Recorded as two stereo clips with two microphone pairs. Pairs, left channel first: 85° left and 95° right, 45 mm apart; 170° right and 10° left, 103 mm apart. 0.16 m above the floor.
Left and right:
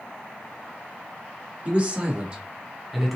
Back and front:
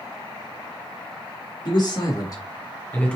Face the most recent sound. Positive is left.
turn(degrees=-175)